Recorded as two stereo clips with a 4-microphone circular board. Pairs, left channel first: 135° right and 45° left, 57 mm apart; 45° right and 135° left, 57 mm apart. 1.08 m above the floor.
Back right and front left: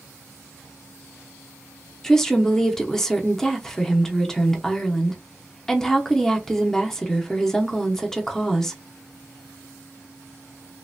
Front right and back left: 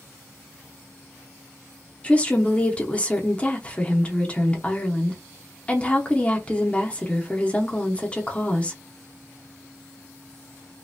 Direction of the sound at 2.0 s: 70° right.